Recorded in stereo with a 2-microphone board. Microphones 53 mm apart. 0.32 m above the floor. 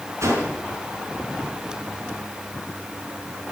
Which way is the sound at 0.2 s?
60° right (ahead or behind).